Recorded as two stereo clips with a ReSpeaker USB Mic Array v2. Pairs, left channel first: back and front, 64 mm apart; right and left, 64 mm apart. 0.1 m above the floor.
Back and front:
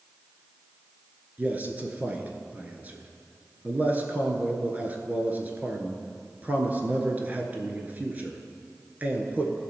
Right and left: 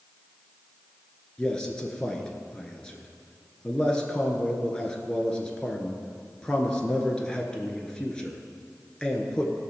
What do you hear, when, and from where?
1.4 s a man speaking: 25° right, 1.2 m